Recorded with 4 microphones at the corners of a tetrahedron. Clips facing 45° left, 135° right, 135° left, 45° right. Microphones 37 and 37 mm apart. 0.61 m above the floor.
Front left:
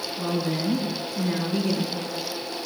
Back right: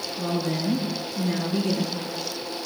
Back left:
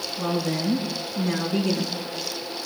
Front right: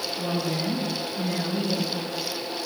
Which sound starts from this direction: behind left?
A woman speaking, at 0.2 s.